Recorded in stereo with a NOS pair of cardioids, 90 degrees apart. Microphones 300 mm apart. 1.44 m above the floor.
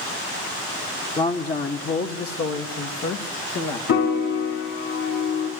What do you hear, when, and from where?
1.2 s a man speaking: 25° left, 1.4 m; by 3.8 s 70° left, 2 m
3.9 s a piano: 65° left, 4 m